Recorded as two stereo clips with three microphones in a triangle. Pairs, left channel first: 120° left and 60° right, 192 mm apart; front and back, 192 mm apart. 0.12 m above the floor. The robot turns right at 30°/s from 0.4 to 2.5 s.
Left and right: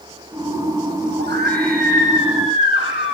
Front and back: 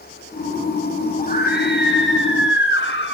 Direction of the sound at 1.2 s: 40° right.